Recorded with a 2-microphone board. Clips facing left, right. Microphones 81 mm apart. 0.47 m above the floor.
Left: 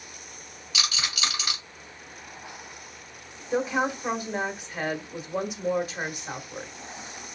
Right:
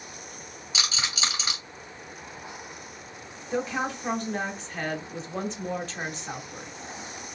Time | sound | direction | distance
0.7 | a rattle | 25° right (ahead or behind) | 2.5 m
3.5 | a woman speaking | 15° left (ahead or behind) | 1.1 m